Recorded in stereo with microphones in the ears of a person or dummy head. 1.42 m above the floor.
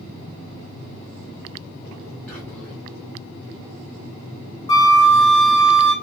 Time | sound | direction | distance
2.3 | whispering | 5° left (ahead or behind) | 0.9 m
4.7 | a flute | 25° left (ahead or behind) | 1.4 m